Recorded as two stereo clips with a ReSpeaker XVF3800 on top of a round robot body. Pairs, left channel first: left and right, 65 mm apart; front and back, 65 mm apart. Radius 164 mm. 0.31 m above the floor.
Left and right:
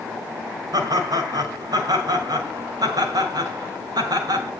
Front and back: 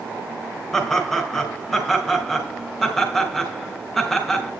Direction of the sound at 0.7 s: 85° right.